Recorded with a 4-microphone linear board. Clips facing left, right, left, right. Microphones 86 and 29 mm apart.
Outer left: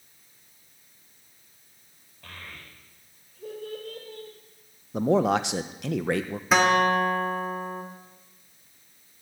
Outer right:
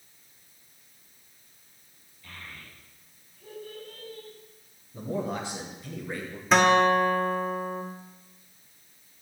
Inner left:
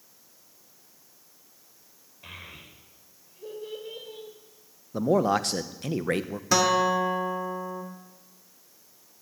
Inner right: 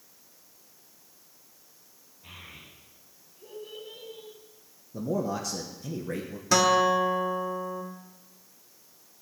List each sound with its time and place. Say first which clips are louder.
2.2 s a child speaking: outer left 1 dB, inner left 3 dB; 65° left (ahead or behind), 5 m
4.9 s a man speaking: outer left 10 dB, inner left 7 dB; 80° left, 1.0 m
6.5 s a guitar: outer right 1 dB, inner right 1 dB; centre (ahead or behind), 1.7 m